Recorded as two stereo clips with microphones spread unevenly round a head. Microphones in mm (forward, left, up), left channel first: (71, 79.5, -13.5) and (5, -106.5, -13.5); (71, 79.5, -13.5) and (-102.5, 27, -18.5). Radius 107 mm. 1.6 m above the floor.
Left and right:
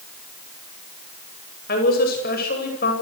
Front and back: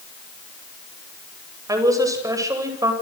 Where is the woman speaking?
125° left, 9.5 m.